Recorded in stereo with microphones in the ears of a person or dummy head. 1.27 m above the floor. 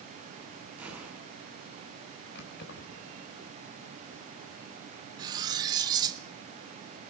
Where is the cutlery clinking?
20° right (ahead or behind), 0.8 m.